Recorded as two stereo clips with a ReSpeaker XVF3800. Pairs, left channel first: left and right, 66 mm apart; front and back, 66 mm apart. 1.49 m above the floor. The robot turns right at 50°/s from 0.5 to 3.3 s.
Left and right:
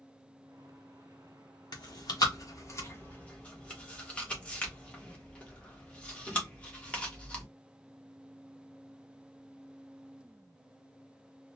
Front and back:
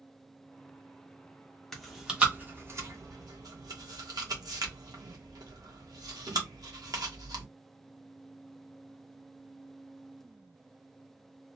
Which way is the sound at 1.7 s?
85° left.